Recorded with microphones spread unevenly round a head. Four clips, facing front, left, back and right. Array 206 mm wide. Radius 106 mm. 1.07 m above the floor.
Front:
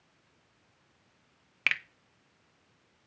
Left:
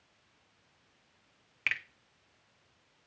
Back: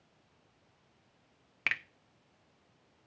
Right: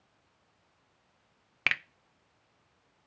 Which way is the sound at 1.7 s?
75° right.